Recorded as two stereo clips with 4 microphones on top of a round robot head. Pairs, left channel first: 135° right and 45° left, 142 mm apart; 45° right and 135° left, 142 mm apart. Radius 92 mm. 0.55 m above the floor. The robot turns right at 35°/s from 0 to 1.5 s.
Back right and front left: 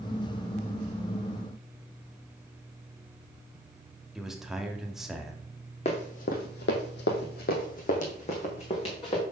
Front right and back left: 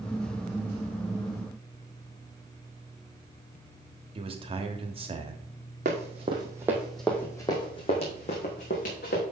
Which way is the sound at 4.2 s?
130° left.